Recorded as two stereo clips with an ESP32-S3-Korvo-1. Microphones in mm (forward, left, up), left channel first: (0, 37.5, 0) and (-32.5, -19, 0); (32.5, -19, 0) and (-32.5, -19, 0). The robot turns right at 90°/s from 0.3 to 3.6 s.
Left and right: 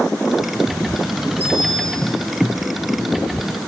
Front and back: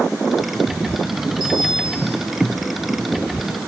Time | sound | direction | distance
1.4 | a bicycle bell | straight ahead | 9.5 m